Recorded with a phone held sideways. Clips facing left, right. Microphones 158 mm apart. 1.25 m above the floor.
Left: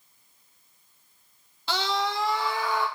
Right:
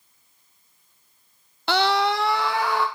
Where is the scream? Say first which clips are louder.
Right 7 dB; 65° right (ahead or behind), 0.5 m; by 2.9 s 70° right (ahead or behind), 1.1 m.